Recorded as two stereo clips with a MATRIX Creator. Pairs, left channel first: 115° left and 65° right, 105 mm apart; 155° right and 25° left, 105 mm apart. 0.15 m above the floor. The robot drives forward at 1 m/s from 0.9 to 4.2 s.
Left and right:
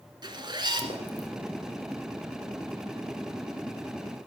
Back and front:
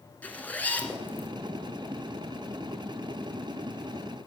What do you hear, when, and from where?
0.2 s a zipper: 85° right, 1.7 m; by 1.3 s 105° right, 1.7 m